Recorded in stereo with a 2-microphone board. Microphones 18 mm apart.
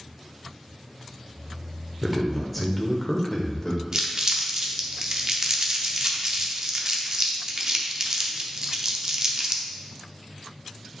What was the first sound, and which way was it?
A man speaking, 10° right (ahead or behind).